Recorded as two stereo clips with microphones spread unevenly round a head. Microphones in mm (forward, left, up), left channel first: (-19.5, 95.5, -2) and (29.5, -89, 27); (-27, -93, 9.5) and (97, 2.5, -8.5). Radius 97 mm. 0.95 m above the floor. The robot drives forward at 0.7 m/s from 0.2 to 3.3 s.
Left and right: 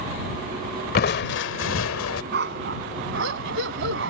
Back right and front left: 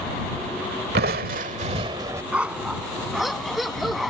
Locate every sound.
0.9 s crushing: 65° left; by 2.2 s 115° left
2.3 s a dog barking: 45° right; by 4.1 s 55° right